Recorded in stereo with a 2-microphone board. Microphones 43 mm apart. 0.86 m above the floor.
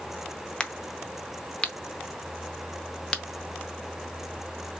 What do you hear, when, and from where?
0.6 s a crack: 20° left (ahead or behind), 0.5 m